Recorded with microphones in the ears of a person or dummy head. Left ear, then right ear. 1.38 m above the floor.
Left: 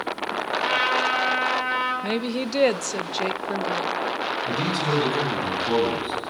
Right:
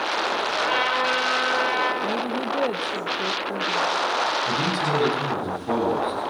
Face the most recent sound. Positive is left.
turn(degrees=5)  # may be behind; listen again after turning